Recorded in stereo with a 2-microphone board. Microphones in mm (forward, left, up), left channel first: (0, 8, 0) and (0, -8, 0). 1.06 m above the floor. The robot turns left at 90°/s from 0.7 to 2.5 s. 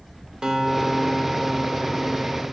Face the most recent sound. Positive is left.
turn(degrees=65)